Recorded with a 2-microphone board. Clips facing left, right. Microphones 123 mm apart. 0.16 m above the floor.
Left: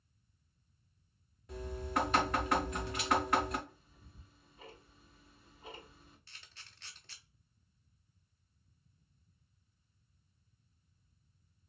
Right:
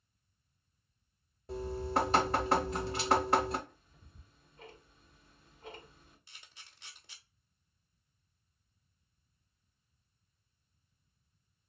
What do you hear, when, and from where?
1.5 s dripping: 30° right (ahead or behind), 0.6 m
3.7 s ticking: 5° left (ahead or behind), 1.3 m
6.3 s a camera shutter: 15° right (ahead or behind), 0.7 m